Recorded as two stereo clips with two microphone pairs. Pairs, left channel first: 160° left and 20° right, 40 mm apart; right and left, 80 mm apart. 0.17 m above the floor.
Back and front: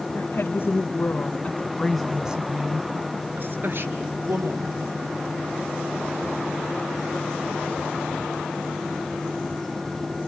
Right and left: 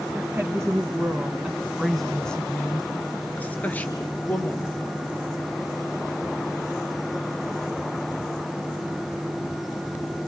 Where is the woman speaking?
160° left, 3 m; by 5.0 s 20° right, 4.5 m.